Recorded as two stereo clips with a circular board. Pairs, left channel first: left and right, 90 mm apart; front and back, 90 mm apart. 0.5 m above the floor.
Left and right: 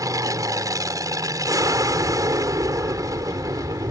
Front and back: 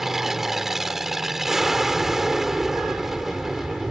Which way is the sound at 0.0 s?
95° right.